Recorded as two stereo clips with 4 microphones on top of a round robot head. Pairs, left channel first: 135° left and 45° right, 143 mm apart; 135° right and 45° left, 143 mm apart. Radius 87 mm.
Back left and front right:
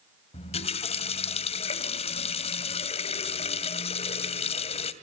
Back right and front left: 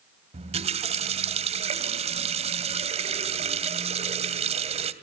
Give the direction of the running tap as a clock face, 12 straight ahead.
9 o'clock.